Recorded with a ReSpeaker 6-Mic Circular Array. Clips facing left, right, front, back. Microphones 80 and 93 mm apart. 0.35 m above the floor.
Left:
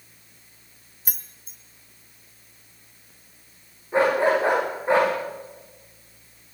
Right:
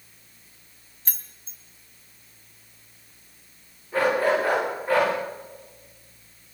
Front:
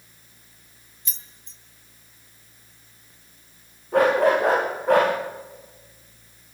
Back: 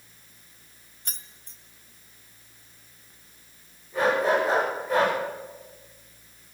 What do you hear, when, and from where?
1.1 s keys jangling: 165° left, 1.4 m
3.9 s a dog barking: 20° left, 8 m